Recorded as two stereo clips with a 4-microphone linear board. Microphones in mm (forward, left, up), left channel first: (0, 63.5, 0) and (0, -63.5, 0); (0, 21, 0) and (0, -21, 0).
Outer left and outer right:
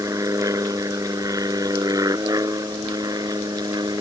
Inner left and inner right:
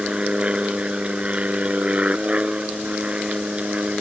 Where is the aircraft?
25° right (ahead or behind); by 4.0 s 30° right (ahead or behind).